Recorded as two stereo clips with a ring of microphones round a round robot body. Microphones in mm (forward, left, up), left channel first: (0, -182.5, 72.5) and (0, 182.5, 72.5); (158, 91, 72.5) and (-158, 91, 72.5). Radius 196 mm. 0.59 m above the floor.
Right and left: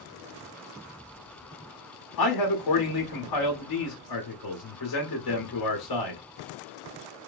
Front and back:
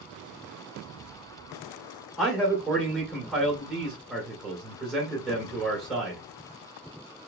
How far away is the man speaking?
About 2 m.